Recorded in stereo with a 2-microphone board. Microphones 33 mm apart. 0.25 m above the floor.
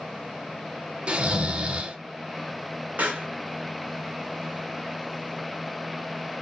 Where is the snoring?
35° right (ahead or behind), 0.5 m.